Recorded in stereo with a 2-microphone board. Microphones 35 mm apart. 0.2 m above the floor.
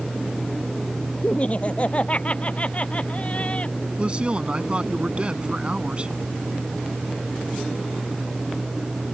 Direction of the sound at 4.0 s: 30° right (ahead or behind).